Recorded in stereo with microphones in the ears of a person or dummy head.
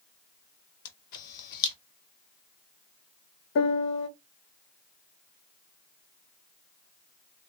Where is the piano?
70° left (ahead or behind), 0.6 m.